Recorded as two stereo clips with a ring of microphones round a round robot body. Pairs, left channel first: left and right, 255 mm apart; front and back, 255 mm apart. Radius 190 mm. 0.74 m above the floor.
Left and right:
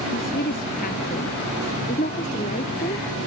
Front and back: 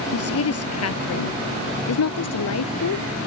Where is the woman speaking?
25° left; by 3.1 s 15° left.